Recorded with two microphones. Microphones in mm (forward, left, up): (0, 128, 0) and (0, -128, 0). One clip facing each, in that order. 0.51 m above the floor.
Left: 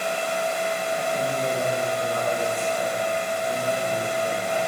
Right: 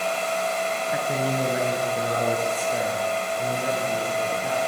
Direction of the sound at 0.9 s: 70° right (ahead or behind).